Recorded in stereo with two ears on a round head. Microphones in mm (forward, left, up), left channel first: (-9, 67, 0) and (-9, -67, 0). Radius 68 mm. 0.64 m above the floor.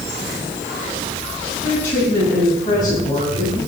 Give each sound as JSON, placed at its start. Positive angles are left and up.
{"t": 1.6, "sound": "a woman speaking", "side_deg": 10, "distance_m": 4.0}